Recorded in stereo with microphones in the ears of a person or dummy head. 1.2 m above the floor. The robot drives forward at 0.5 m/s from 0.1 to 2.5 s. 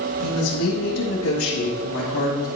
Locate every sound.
0.2 s a woman speaking: 85° left, 1.4 m; by 2.5 s 55° left (ahead or behind), 1.7 m